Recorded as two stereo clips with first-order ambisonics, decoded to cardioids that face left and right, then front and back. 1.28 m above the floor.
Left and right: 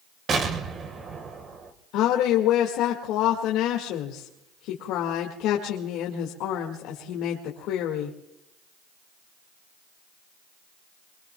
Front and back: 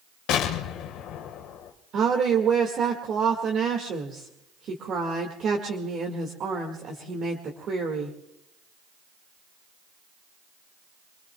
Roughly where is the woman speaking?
Behind left.